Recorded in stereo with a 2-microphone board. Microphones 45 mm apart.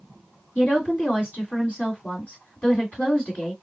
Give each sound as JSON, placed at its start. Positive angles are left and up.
{"t": 0.6, "sound": "a woman speaking", "side_deg": 40, "distance_m": 1.9}